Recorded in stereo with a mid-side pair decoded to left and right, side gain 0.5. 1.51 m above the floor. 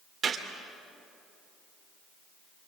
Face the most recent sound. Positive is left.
turn(degrees=-40)